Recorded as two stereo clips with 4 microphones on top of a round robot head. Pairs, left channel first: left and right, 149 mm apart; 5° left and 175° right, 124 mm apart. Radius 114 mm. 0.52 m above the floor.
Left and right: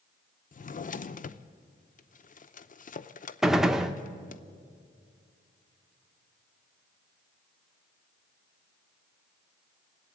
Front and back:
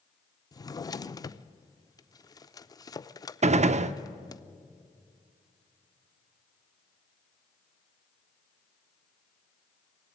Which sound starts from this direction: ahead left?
A drawer, at 0.5 s.